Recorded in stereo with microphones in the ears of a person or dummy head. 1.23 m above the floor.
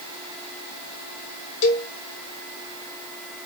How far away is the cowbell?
About 0.9 m.